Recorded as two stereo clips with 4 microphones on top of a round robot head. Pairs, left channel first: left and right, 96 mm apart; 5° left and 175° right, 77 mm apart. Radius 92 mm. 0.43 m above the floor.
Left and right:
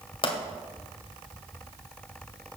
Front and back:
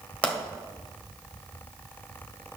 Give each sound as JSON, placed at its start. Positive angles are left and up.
{"t": 0.2, "sound": "a pop", "azimuth_deg": 75, "distance_m": 2.0}